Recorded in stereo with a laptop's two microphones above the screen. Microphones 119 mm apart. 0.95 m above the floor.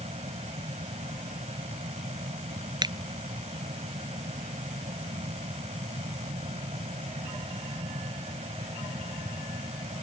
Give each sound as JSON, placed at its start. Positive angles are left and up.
{"t": 0.0, "sound": "a fan", "side_deg": -70}
{"t": 2.8, "sound": "a finger snap", "side_deg": -35}